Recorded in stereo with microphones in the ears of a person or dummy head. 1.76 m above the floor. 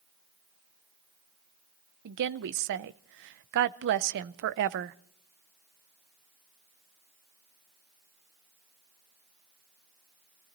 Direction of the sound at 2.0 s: 60° right (ahead or behind).